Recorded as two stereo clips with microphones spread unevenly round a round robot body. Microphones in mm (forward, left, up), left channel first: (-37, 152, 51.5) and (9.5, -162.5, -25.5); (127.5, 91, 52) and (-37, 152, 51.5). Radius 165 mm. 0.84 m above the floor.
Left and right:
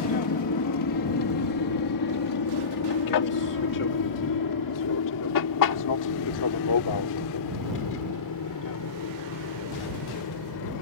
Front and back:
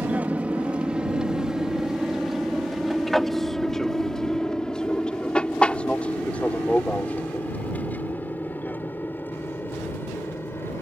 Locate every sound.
0.0 s an aircraft: 80° left; by 10.8 s 55° left